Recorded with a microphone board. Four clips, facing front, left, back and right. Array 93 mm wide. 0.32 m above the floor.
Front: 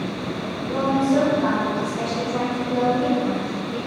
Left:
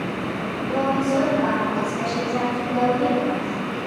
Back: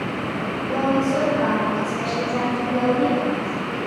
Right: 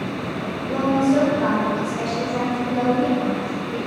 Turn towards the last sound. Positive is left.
turn(degrees=-165)